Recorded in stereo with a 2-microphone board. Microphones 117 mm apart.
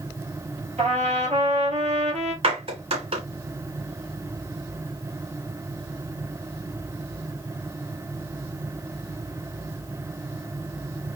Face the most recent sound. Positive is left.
turn(degrees=-60)  # may be behind; listen again after turning